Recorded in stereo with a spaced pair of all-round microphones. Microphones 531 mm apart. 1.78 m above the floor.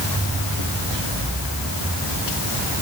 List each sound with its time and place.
Only background noise.